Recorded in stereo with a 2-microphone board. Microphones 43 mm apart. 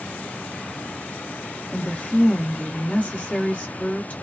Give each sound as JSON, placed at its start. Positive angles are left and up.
{"t": 1.7, "sound": "a woman speaking", "side_deg": 40, "distance_m": 1.6}